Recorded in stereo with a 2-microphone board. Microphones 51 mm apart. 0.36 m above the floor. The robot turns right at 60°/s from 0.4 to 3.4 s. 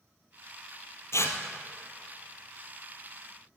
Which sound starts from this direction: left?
Tearing paper, at 1.1 s.